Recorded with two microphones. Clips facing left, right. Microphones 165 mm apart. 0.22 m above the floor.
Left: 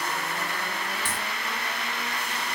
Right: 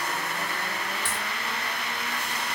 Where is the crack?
40° left (ahead or behind), 2.5 m.